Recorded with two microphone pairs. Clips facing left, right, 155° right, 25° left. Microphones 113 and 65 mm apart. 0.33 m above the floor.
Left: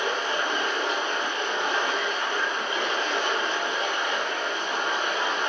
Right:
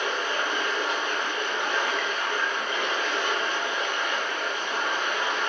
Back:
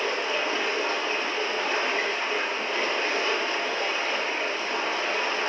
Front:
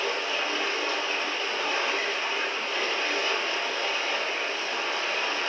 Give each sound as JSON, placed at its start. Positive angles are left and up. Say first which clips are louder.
{"t": 0.0, "sound": "running water", "louder": "left 1 dB, back 2 dB", "azimuth_deg": 150, "distance_m": 2.5}